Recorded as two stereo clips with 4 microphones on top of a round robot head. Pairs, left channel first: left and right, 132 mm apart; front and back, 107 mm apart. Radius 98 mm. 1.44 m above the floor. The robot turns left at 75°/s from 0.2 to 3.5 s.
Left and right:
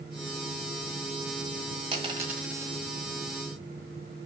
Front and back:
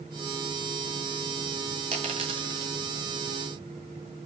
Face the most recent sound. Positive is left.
turn(degrees=100)